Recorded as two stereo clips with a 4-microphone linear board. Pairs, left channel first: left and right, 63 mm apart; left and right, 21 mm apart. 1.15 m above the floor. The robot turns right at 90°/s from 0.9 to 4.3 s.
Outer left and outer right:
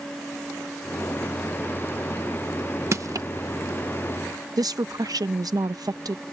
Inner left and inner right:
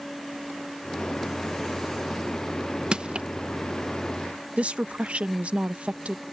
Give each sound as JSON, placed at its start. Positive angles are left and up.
{"t": 2.9, "sound": "crushing", "side_deg": -50}
{"t": 4.6, "sound": "a woman speaking", "side_deg": -80}